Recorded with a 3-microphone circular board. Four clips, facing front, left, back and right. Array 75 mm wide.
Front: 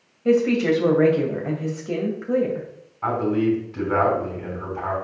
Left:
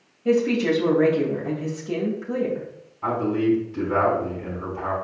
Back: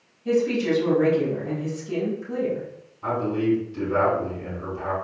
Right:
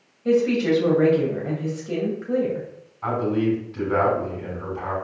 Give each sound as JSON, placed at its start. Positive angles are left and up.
{"t": 0.2, "sound": "a woman speaking", "azimuth_deg": -5, "distance_m": 3.0}
{"t": 3.0, "sound": "a man speaking", "azimuth_deg": -10, "distance_m": 5.0}